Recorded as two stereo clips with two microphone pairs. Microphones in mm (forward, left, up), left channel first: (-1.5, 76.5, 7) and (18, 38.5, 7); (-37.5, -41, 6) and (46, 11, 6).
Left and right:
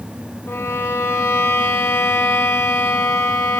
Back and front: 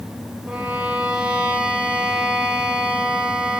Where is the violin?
110° left, 0.6 m.